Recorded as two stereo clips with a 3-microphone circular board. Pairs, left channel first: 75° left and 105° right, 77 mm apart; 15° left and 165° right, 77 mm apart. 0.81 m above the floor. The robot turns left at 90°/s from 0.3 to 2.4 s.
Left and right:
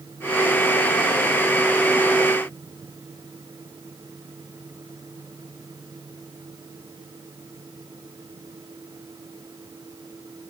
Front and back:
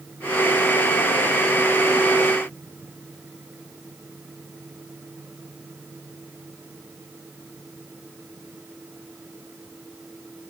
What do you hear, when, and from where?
Only background noise.